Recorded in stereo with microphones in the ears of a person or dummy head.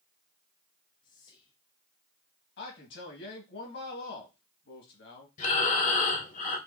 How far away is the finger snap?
I don't hear a finger snap.